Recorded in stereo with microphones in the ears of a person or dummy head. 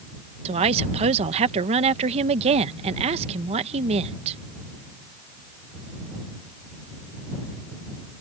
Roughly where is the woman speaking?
Right.